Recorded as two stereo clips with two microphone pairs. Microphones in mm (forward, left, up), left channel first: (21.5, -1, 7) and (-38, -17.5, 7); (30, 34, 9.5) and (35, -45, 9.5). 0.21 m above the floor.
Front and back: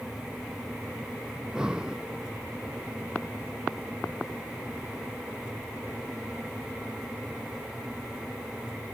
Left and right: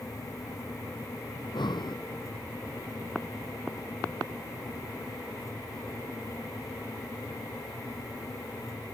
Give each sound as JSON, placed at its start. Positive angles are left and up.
{"t": 1.4, "sound": "breathing", "azimuth_deg": 120}